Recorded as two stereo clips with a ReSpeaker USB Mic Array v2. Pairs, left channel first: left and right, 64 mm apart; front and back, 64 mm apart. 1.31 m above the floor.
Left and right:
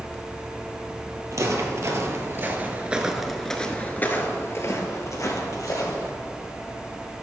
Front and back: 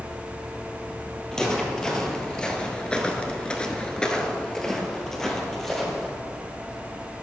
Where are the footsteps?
80° right, 2.5 m; by 6.1 s 85° left, 3 m.